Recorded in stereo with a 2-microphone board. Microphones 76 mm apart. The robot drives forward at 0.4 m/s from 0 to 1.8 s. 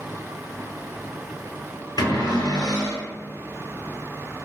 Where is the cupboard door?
70° left (ahead or behind), 1.4 m.